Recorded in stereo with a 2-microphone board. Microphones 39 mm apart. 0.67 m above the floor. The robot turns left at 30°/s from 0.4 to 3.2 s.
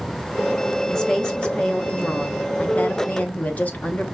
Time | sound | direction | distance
0.9 | a woman speaking | 165° left | 0.9 m